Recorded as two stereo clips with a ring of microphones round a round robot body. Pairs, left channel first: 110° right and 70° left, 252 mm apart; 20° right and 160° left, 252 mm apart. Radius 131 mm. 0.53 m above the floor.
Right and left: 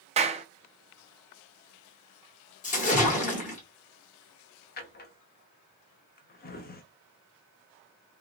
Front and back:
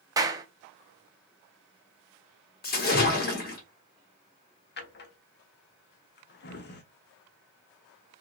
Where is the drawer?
65° right, 0.8 m.